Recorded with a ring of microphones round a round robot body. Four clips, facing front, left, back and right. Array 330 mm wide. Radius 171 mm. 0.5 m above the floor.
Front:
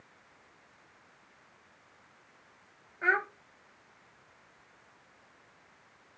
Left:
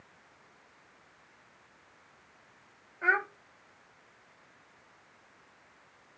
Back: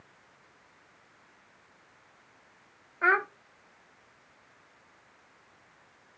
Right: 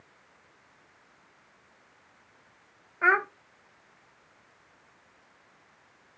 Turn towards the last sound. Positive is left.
turn(degrees=-125)